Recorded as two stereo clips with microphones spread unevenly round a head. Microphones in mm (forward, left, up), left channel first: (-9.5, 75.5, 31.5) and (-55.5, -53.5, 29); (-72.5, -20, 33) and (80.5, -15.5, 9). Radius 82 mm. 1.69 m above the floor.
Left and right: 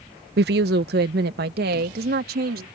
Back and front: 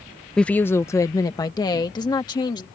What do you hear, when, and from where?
0.4 s a woman speaking: 95° right; by 2.6 s 115° right